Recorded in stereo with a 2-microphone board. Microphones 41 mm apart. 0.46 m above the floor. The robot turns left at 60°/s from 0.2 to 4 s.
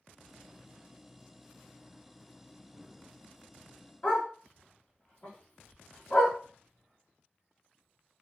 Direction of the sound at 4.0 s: 35° left (ahead or behind).